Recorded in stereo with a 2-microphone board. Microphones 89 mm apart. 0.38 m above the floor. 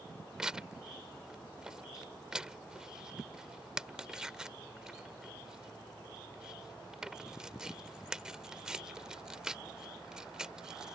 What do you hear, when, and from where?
0.4 s tearing paper: 5° right (ahead or behind)